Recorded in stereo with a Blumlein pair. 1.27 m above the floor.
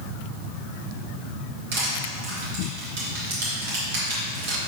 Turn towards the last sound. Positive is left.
turn(degrees=-55)